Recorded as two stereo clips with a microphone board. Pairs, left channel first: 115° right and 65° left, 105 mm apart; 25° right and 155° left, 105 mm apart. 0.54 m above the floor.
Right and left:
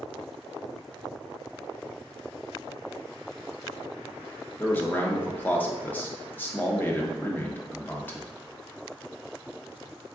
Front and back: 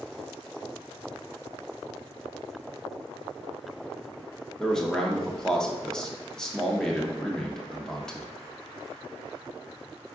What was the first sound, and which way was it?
A man speaking, 95° right.